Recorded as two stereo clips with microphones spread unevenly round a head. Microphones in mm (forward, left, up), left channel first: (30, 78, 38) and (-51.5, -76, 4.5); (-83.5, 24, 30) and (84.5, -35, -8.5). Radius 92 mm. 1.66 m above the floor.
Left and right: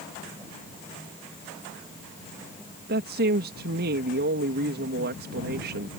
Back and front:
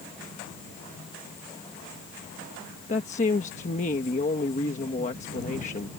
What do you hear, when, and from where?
2.9 s a woman speaking: 150° right